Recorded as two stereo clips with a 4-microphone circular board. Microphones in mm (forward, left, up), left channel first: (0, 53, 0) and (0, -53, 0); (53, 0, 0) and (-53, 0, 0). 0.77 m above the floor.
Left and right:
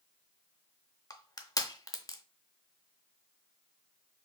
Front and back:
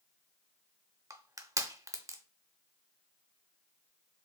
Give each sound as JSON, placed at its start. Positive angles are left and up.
{"t": 1.1, "sound": "crushing", "azimuth_deg": 135, "distance_m": 0.6}